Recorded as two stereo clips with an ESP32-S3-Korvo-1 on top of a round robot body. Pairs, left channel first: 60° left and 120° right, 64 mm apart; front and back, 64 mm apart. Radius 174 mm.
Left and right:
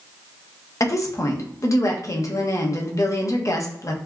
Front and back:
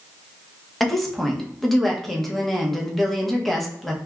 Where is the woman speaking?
85° left, 0.9 m.